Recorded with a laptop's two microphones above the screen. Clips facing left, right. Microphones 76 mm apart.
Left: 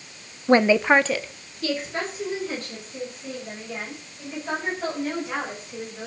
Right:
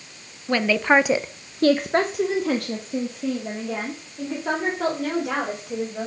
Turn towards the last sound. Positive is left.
turn(degrees=-85)